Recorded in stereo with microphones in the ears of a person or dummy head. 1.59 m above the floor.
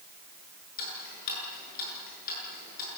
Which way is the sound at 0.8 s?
65° left (ahead or behind).